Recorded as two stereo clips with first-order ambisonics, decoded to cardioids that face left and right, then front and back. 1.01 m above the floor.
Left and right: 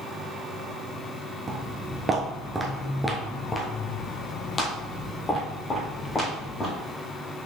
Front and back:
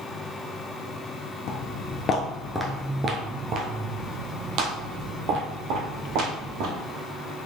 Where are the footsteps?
30° right, 1.4 m; by 6.7 s 160° left, 4 m.